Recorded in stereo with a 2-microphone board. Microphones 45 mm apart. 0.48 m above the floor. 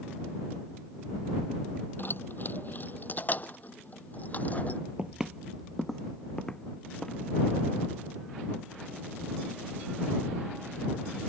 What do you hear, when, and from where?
2.0 s keys jangling: 50° left (ahead or behind); by 4.8 s 35° left (ahead or behind)
5.0 s footsteps: 25° right (ahead or behind); by 7.2 s 20° left (ahead or behind)